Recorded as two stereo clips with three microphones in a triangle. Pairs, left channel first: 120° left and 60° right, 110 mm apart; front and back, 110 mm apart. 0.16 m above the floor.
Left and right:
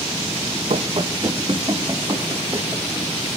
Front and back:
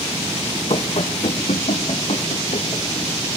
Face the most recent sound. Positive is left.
turn(degrees=5)